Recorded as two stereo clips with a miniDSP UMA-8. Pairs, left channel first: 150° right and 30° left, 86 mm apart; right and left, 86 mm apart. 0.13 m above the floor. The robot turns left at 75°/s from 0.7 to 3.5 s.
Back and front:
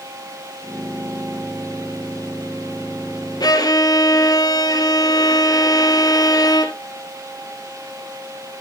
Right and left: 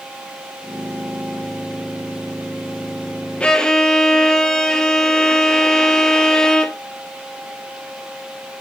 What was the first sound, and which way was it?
A violin, 165° right.